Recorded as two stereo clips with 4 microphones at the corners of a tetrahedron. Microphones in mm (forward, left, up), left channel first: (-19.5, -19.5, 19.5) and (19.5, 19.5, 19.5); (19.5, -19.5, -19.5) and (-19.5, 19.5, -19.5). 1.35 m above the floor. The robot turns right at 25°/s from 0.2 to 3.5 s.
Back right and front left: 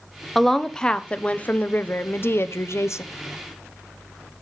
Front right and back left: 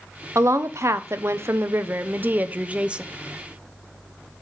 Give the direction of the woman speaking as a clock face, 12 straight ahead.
7 o'clock.